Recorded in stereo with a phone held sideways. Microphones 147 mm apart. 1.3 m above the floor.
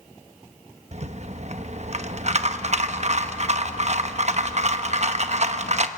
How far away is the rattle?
About 1.0 m.